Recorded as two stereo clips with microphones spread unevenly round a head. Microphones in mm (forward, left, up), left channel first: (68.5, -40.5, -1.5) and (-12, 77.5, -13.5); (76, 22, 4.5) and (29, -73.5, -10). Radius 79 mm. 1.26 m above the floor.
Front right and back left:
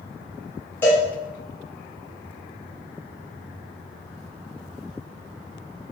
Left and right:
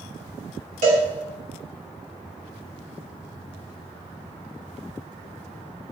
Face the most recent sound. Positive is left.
turn(degrees=-135)